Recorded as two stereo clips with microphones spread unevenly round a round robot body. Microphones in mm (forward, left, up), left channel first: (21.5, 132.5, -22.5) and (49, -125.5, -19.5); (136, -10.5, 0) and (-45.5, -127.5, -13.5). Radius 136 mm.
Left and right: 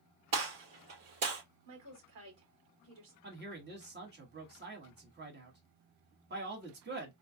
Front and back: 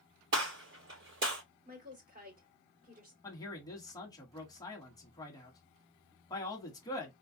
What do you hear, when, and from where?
0.3 s a gunshot: 120° right, 2.5 m
1.6 s a woman speaking: 95° right, 2.5 m
3.2 s a man speaking: 40° right, 1.5 m